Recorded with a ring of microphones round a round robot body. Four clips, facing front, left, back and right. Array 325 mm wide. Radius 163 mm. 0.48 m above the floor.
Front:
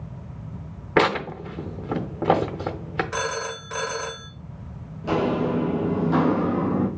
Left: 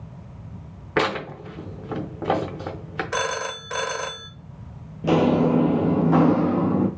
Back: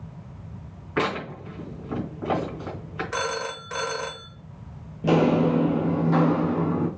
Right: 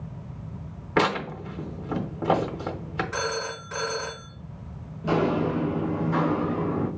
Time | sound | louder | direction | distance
1.0 | tearing paper | even, front 6 dB | 5° left | 0.7 m
3.1 | a phone ringing | left 7 dB, front 1 dB | 90° left | 1.0 m
5.0 | footsteps | left 5 dB, back 3 dB | 135° left | 0.6 m